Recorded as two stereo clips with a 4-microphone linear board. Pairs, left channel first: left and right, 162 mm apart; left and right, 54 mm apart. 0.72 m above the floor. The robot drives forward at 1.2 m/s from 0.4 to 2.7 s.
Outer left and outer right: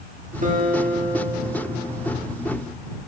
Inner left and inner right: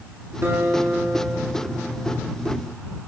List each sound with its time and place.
0.4 s a guitar: 50° right (ahead or behind), 1.3 m; by 2.1 s 30° right (ahead or behind), 2.0 m